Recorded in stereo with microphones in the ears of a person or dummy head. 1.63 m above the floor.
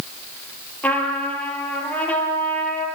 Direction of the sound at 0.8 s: 10° left (ahead or behind).